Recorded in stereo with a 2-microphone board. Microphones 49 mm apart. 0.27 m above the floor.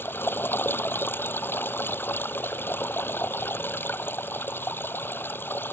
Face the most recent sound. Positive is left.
turn(degrees=45)  # may be behind; listen again after turning